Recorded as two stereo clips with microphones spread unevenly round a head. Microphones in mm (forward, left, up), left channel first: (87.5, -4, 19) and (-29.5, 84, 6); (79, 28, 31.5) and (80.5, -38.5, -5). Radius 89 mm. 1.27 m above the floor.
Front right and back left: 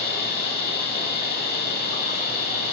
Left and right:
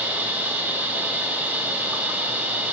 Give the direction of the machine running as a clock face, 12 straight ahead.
1 o'clock.